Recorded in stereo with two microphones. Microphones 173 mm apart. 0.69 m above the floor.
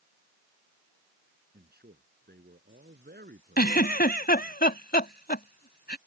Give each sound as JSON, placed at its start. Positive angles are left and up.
{"t": 1.5, "sound": "a man speaking", "side_deg": -85}
{"t": 3.6, "sound": "a giggle", "side_deg": 75}